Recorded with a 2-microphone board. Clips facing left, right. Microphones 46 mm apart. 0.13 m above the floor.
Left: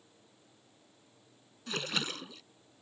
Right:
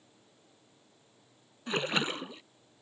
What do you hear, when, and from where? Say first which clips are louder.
1.7 s a splash: right 5 dB; 25° right (ahead or behind)